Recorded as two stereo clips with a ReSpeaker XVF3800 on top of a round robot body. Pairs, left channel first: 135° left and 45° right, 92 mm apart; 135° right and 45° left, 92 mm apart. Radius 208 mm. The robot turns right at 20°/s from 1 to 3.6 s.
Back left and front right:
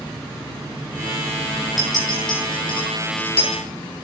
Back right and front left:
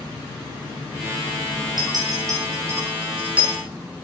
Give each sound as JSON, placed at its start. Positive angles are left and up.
{"t": 1.8, "sound": "a clink", "azimuth_deg": 85, "distance_m": 5.5}